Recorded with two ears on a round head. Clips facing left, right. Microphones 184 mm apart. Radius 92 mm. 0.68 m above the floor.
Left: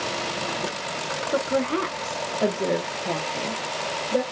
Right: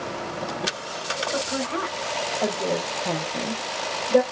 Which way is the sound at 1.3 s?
45° left (ahead or behind).